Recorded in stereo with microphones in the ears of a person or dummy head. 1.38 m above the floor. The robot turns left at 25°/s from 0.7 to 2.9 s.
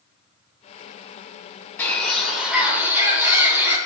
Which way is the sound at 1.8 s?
20° left (ahead or behind).